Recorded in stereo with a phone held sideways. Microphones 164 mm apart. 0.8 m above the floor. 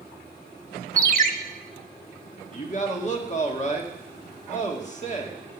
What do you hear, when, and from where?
1.0 s a ringtone: 55° right (ahead or behind), 0.8 m
2.5 s a man speaking: 45° left (ahead or behind), 1.7 m